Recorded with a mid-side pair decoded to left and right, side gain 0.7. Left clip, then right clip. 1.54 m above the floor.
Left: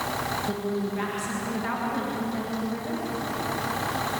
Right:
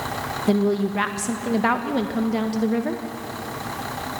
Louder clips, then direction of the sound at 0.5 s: Right 7 dB; 50° right.